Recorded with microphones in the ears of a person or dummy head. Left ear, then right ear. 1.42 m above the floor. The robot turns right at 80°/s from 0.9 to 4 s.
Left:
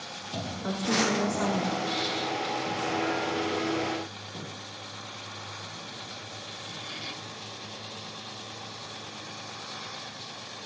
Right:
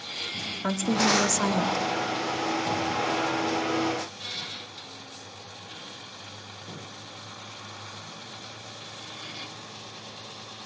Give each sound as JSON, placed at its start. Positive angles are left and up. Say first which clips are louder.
{"t": 0.6, "sound": "a woman speaking", "louder": "right 2 dB", "azimuth_deg": -120, "distance_m": 0.9}